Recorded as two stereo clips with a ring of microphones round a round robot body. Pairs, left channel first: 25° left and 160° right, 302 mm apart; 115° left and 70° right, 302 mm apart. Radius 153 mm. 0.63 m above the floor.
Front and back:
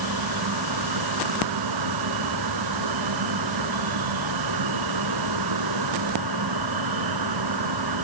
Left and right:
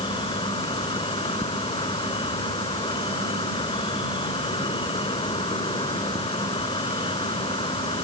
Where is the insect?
170° right.